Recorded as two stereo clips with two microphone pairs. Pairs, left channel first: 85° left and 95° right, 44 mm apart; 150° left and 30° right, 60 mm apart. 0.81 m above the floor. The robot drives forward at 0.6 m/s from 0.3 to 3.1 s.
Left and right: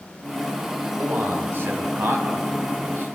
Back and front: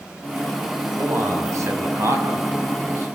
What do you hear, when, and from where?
1.0 s a man speaking: 60° right, 7 m; by 3.2 s 70° right, 6.5 m